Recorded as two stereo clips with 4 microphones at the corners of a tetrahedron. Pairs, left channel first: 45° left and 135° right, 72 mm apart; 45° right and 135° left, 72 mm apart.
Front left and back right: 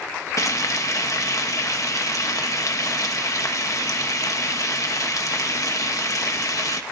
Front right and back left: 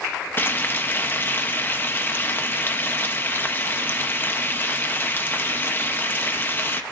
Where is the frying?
10° left, 1.0 m.